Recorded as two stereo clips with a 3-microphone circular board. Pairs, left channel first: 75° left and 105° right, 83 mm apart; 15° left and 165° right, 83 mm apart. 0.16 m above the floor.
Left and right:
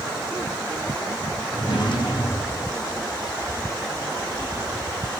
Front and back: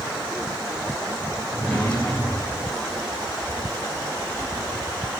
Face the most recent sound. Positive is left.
turn(degrees=95)